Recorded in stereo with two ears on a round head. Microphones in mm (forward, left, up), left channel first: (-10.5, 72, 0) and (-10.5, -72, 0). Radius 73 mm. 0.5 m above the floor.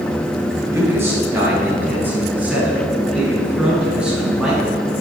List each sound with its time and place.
0.7 s a man speaking: 15° right (ahead or behind), 5 m; by 5.0 s 5° right (ahead or behind), 7 m